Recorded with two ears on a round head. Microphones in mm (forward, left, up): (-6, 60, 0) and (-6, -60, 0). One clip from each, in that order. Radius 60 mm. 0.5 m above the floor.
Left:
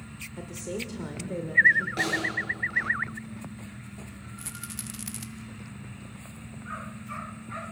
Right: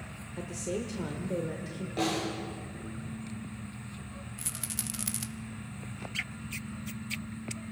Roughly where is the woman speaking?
Centre.